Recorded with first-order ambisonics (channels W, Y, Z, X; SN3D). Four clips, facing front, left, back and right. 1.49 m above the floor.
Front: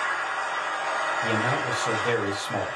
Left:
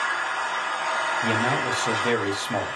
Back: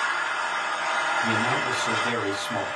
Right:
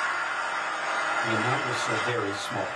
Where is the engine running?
140° left, 0.9 m.